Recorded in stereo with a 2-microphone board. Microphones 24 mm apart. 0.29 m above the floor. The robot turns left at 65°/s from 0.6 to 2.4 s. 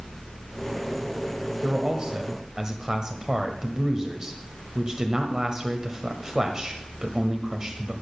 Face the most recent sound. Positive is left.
turn(degrees=-120)